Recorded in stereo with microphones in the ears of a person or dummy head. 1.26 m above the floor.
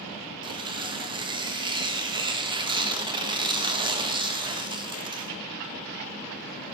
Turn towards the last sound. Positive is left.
turn(degrees=-15)  # may be behind; listen again after turning